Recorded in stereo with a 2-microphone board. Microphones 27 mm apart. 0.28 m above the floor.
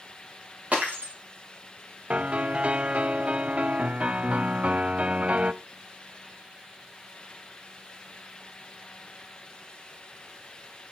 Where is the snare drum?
No snare drum in this recording.